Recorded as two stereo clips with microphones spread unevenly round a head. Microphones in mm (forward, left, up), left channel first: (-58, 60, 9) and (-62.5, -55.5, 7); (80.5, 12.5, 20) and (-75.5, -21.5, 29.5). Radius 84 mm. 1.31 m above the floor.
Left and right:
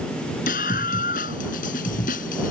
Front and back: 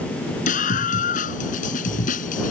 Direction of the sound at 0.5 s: 55° left.